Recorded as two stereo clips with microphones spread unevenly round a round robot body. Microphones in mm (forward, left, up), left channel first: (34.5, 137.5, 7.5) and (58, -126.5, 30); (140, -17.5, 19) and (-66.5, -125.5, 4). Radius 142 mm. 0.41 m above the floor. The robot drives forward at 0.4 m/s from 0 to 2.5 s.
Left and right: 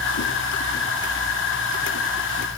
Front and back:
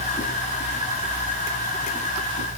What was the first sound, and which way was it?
Only background noise.